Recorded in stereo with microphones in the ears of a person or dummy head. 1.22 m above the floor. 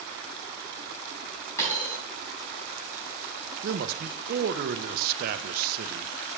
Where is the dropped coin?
20° left (ahead or behind), 4 m.